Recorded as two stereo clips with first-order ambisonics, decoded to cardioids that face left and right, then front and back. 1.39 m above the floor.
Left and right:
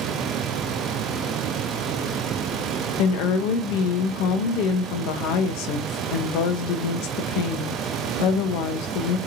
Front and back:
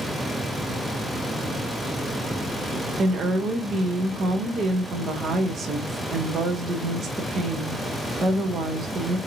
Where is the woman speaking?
110° left, 0.6 m.